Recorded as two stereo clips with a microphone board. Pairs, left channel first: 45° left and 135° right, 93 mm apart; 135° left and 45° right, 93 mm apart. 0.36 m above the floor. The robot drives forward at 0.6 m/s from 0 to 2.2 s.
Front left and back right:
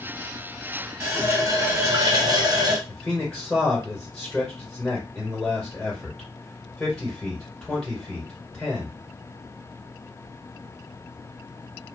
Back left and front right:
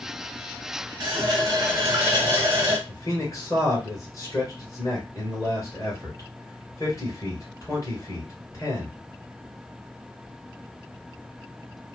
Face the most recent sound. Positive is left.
turn(degrees=130)